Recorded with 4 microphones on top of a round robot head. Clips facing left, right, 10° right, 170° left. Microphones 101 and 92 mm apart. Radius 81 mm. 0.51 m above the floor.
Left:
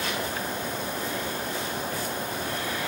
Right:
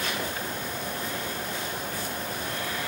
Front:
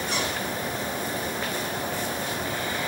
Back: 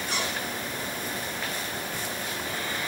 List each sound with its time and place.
Only background noise.